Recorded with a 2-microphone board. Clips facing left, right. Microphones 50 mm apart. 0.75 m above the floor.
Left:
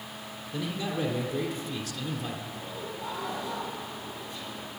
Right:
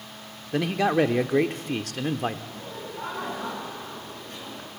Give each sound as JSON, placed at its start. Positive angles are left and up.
{"t": 0.5, "sound": "a man speaking", "side_deg": -75, "distance_m": 1.7}
{"t": 2.5, "sound": "laughter", "side_deg": -55, "distance_m": 9.0}